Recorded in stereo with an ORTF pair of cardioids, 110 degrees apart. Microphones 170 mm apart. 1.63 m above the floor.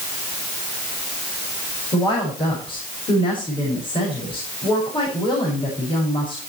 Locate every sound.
1.9 s a woman speaking: 30° left, 7 m